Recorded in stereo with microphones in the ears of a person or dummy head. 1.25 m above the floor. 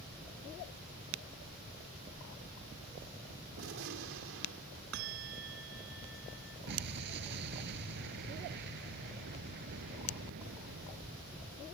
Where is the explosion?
60° right (ahead or behind).